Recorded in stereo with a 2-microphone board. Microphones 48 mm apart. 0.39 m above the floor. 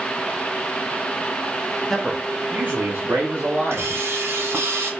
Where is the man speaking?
10° left (ahead or behind), 0.8 m; by 3.9 s 65° right (ahead or behind), 2 m.